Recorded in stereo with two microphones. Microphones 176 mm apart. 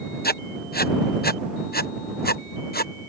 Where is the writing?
60° left (ahead or behind).